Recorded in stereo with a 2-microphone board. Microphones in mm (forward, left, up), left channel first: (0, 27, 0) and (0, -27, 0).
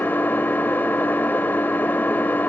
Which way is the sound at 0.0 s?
40° left (ahead or behind).